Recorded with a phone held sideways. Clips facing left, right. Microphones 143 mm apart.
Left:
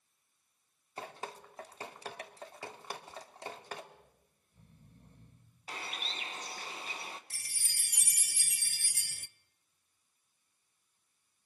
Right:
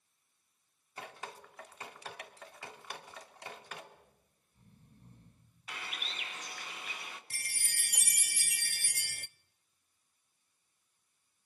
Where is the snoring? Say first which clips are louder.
Left 1 dB; 70° left (ahead or behind), 9 m.